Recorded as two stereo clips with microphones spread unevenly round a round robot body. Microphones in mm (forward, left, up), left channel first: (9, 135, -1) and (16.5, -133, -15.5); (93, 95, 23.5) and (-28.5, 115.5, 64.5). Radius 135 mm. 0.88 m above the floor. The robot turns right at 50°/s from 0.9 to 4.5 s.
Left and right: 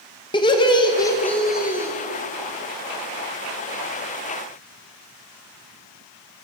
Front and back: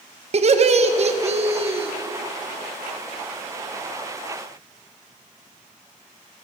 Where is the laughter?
155° left, 0.7 m; by 1.9 s 150° right, 0.7 m.